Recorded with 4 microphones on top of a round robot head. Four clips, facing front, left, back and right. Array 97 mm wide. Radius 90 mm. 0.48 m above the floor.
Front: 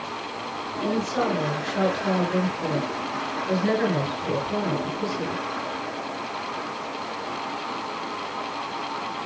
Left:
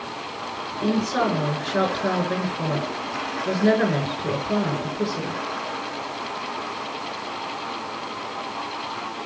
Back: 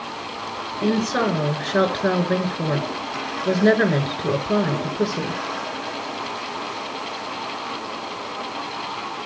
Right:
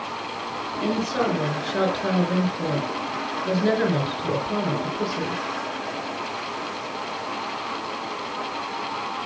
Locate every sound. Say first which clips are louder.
0.8 s a woman speaking: left 2 dB, back 4 dB; 170° left, 8 m